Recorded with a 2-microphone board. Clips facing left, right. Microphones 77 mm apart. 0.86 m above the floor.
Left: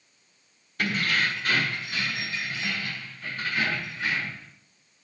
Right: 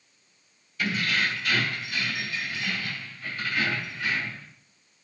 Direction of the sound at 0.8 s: 55° left (ahead or behind).